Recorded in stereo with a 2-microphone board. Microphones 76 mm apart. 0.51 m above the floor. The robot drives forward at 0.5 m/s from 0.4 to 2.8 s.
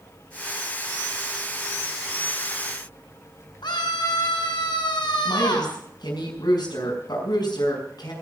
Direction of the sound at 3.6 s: 70° left (ahead or behind).